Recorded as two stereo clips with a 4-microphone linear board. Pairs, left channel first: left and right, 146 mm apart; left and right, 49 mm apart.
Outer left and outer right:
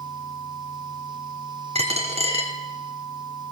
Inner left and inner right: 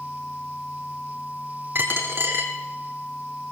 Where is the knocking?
I don't hear knocking.